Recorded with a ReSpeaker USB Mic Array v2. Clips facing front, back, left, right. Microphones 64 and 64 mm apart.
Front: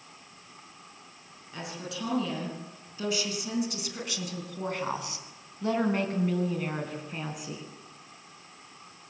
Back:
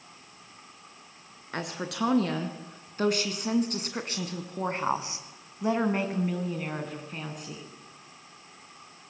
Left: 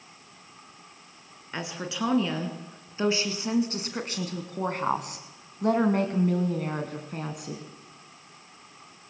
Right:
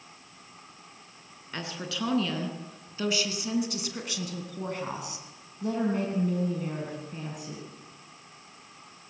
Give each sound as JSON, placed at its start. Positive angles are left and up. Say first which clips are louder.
{"t": 1.5, "sound": "a woman speaking", "louder": "back 5 dB, left 2 dB", "azimuth_deg": 165, "distance_m": 4.0}